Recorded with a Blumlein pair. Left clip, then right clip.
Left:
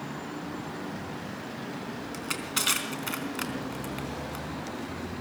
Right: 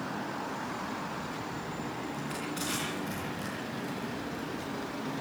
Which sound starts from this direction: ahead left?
Crushing, at 2.1 s.